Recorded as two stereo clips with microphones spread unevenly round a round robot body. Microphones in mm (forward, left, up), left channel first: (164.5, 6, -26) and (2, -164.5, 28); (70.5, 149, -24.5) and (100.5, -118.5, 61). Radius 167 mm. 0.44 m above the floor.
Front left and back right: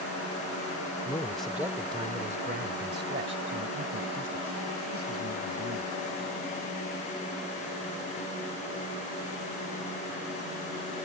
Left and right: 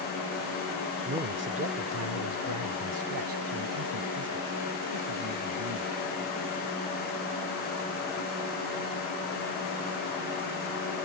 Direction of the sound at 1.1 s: 15° right.